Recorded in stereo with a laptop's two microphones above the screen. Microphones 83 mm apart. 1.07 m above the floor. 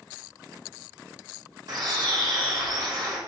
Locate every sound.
1.7 s a bird: 55° right (ahead or behind), 1.5 m